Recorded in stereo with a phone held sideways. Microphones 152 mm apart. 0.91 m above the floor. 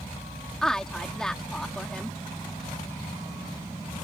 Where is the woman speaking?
5° left (ahead or behind).